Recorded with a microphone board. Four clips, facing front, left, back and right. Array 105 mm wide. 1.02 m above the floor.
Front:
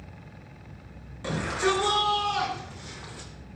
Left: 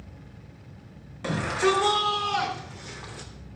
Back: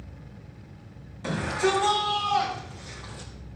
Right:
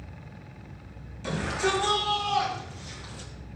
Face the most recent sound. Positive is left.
turn(degrees=70)